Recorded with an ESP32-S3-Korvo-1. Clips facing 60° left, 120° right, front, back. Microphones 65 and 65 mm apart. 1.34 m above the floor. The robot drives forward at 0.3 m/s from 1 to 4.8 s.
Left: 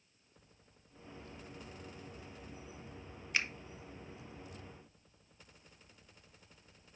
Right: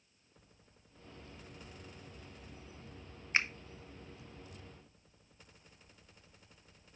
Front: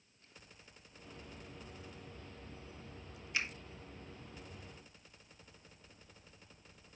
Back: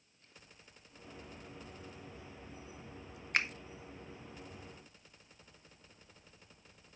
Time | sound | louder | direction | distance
3.3 | a finger snap | right 3 dB, back 5 dB | 170° right | 0.5 m